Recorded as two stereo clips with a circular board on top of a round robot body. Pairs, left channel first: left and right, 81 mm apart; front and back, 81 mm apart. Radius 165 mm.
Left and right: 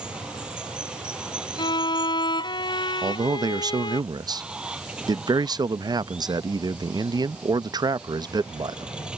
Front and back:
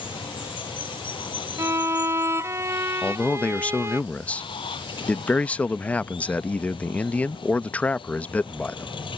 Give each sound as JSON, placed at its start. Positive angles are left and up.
{"t": 0.0, "sound": "running water", "azimuth_deg": -10}
{"t": 1.6, "sound": "a violin", "azimuth_deg": 125}
{"t": 3.0, "sound": "a man speaking", "azimuth_deg": -70}